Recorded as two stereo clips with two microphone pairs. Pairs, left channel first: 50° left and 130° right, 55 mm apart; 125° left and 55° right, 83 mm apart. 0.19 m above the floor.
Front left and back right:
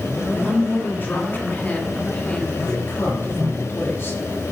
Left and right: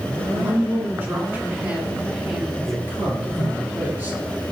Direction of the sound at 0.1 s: 5° left.